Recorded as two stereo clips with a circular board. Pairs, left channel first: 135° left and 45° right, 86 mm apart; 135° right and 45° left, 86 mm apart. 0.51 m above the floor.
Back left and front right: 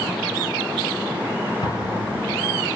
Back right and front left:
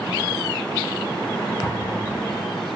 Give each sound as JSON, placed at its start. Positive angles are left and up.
{"t": 1.6, "sound": "an explosion", "azimuth_deg": 160, "distance_m": 3.0}